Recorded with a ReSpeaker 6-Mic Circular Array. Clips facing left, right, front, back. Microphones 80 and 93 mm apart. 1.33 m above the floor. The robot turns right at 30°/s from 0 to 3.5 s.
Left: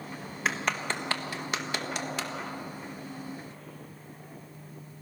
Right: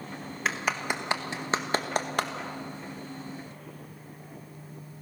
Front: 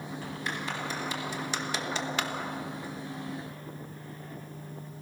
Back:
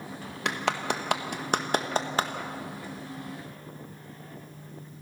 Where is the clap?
Straight behind, 1.6 m; by 2.3 s 125° right, 1.6 m.